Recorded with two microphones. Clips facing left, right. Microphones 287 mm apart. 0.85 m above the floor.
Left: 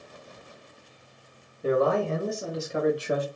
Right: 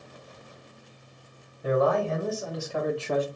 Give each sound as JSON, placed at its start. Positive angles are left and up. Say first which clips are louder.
{"t": 1.6, "sound": "a man speaking", "louder": "left 1 dB", "side_deg": 35, "distance_m": 1.7}